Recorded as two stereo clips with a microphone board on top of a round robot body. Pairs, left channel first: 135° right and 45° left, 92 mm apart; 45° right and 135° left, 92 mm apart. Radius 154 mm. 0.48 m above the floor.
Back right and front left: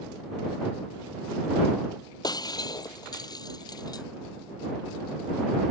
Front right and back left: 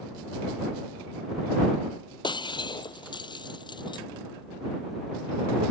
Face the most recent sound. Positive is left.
turn(degrees=-85)